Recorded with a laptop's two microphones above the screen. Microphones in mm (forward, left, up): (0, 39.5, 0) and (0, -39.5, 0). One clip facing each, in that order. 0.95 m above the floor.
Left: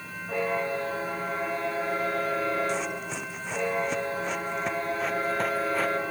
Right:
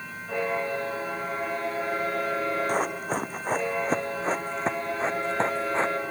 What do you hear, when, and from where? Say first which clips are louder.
2.7 s running footsteps: right 4 dB; 45° right (ahead or behind); by 6.0 s 25° right (ahead or behind)